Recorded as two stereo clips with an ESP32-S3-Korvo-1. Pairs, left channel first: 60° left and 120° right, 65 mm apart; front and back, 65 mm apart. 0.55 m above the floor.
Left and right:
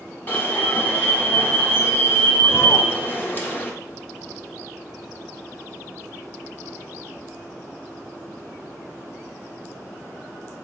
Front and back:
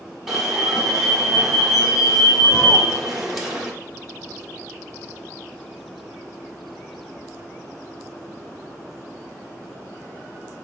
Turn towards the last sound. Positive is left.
turn(degrees=95)